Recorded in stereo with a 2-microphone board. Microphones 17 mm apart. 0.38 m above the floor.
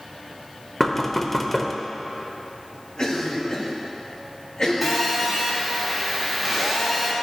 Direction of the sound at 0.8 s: 20° left (ahead or behind).